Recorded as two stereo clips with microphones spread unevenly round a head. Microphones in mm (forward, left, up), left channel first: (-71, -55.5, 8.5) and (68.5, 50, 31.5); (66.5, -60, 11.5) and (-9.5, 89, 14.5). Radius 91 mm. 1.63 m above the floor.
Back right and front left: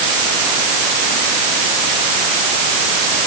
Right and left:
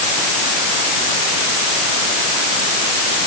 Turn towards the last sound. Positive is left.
No sound to turn to.